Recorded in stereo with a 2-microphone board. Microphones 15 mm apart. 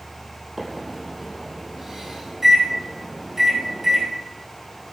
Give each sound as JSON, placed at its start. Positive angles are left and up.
{"t": 0.6, "sound": "a microwave", "side_deg": -30, "distance_m": 3.0}